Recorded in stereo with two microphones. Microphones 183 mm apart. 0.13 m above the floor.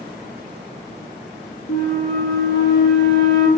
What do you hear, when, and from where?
1.7 s a flute: 80° left, 0.5 m